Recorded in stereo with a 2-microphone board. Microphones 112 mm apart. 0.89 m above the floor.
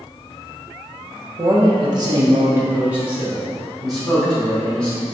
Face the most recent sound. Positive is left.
turn(degrees=5)  # may be behind; listen again after turning